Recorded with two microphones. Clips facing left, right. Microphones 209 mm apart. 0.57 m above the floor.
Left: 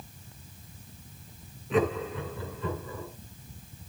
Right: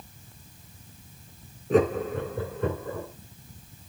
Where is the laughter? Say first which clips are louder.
Right 5 dB; 40° right (ahead or behind), 2.5 m; by 3.1 s 65° right (ahead or behind), 3 m.